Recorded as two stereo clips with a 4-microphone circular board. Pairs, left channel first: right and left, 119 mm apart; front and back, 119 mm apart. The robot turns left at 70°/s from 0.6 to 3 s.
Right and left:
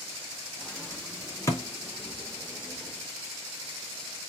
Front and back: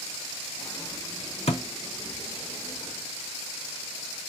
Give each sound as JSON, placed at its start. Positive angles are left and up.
{"t": 1.5, "sound": "a thud", "azimuth_deg": -25, "distance_m": 1.1}